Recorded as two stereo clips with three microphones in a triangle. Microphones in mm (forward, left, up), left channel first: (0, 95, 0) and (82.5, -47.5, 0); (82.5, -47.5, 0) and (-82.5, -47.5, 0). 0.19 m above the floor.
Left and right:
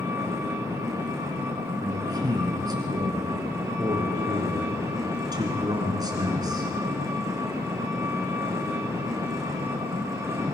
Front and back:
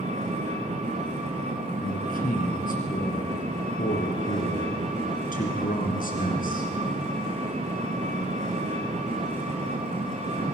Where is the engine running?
135° right, 3.5 m.